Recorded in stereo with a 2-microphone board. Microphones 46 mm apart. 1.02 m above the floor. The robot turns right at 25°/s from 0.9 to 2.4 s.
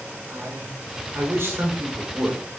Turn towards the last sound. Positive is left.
turn(degrees=-35)